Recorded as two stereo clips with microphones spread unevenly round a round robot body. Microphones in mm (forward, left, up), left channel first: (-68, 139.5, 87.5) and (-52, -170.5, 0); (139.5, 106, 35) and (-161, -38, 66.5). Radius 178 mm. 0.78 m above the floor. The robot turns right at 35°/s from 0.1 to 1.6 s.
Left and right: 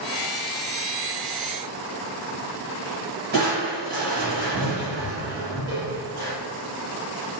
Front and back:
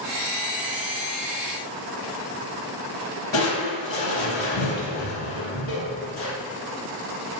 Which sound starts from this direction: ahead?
Crushing, at 3.3 s.